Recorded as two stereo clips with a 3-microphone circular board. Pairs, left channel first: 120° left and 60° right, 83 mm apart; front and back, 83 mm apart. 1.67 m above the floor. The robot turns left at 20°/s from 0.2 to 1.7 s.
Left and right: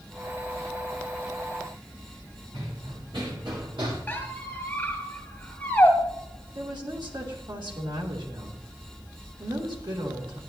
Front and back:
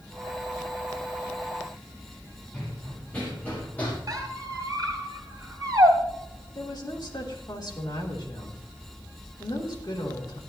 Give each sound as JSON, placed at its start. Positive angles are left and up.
{"t": 2.5, "sound": "running footsteps", "azimuth_deg": -75, "distance_m": 5.5}
{"t": 4.1, "sound": "a squeak", "azimuth_deg": -175, "distance_m": 2.5}
{"t": 6.5, "sound": "a woman speaking", "azimuth_deg": -35, "distance_m": 3.0}